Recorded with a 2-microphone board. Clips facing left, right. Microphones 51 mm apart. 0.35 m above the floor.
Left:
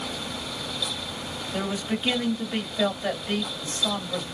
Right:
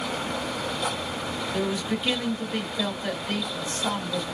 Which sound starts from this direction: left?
A man speaking, at 1.5 s.